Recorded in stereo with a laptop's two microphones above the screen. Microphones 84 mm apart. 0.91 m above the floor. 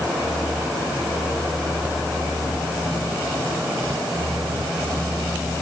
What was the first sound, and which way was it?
Only background noise.